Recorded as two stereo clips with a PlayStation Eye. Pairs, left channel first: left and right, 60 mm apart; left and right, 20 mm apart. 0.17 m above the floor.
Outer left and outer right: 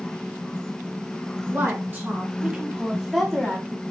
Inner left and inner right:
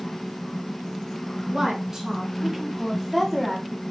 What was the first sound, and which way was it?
A woman speaking, 35° right (ahead or behind).